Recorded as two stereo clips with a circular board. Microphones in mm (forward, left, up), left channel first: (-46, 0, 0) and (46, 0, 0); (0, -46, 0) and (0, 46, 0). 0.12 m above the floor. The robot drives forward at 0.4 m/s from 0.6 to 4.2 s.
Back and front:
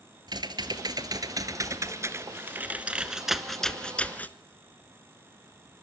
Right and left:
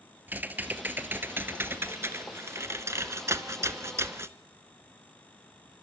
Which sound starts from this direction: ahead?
Typing on a keyboard, at 0.3 s.